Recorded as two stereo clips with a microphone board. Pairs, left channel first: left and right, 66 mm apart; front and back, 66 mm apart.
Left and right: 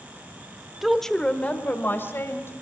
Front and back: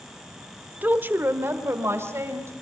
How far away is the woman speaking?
About 1.3 m.